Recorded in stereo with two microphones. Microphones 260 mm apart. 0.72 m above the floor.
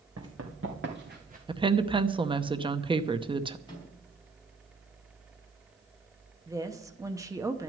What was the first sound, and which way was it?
Running footsteps, 60° right (ahead or behind).